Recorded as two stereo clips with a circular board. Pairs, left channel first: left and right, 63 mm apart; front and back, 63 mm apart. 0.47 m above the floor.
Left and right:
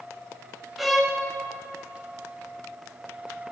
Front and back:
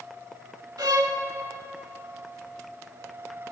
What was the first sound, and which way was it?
A violin, straight behind.